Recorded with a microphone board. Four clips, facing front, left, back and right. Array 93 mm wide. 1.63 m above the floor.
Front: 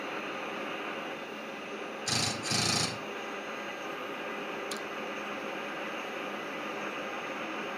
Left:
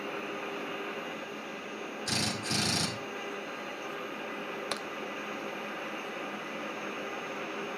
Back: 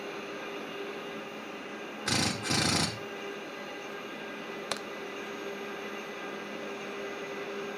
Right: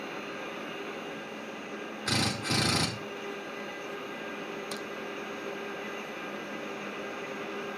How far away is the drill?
About 4.5 m.